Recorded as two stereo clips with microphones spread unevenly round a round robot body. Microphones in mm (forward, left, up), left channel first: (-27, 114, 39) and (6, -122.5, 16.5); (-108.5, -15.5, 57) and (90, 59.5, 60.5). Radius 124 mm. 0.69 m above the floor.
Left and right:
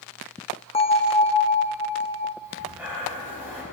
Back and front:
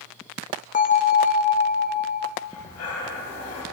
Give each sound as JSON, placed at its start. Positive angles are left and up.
{"t": 0.7, "sound": "a bell", "azimuth_deg": 160, "distance_m": 0.7}
{"t": 2.4, "sound": "breathing", "azimuth_deg": -165, "distance_m": 3.0}